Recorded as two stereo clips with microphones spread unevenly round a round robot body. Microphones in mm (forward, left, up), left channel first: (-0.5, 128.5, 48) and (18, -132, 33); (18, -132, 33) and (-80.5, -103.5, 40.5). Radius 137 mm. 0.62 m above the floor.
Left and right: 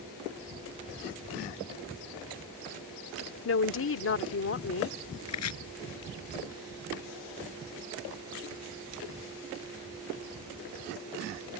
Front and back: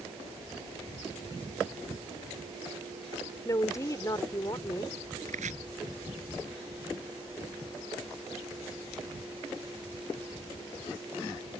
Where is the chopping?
130° left.